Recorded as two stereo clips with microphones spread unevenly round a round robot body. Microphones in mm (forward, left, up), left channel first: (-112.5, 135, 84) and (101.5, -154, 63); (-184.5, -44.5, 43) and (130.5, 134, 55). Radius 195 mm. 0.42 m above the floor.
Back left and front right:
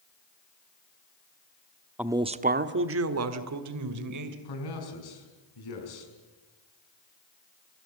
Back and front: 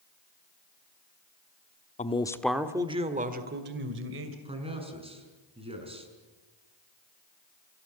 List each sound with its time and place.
2.0 s a man speaking: 125° right, 1.2 m; by 4.3 s 25° right, 2.5 m
4.5 s a man speaking: 105° left, 5.5 m